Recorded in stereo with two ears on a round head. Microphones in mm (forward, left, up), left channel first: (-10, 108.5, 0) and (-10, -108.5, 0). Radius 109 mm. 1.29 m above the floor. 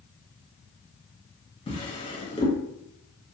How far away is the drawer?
About 0.5 m.